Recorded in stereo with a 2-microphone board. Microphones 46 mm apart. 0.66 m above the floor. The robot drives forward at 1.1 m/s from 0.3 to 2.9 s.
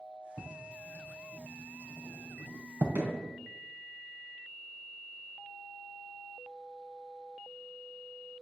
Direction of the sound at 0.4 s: 35° right (ahead or behind).